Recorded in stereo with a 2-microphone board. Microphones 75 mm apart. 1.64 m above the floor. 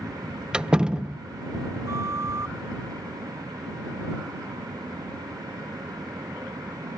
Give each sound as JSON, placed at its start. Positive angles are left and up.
{"t": 0.5, "sound": "a door slam", "side_deg": -10}
{"t": 1.9, "sound": "a flute", "side_deg": -45}